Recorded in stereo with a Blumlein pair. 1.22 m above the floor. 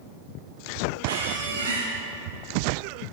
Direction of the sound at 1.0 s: 65° right.